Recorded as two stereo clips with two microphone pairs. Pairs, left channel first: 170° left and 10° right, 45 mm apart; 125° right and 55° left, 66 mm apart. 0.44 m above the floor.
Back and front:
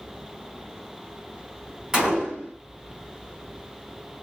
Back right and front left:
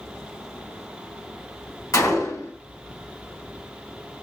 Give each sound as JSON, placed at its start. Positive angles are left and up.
{"t": 1.9, "sound": "a gunshot", "azimuth_deg": -95, "distance_m": 2.5}